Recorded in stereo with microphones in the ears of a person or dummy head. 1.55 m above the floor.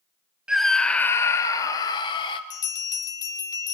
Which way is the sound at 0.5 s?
Centre (ahead or behind).